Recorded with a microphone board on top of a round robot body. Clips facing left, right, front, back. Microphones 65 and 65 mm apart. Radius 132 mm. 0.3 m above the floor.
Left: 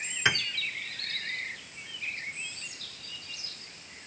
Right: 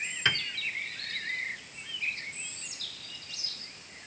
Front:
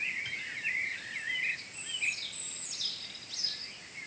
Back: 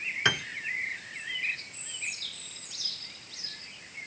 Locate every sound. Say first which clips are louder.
0.2 s a piano: left 2 dB, back 12 dB; 170° left